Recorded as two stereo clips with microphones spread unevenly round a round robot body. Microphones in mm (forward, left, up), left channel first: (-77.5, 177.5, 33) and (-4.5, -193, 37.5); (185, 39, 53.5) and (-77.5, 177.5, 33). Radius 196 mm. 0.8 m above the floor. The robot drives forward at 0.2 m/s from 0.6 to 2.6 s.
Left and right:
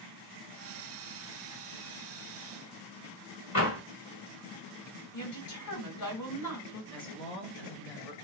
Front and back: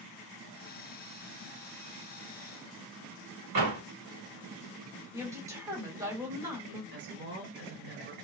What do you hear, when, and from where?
3.5 s a door slam: 155° left, 1.5 m
5.1 s a woman speaking: 75° left, 1.9 m
6.9 s a woman speaking: 175° left, 1.0 m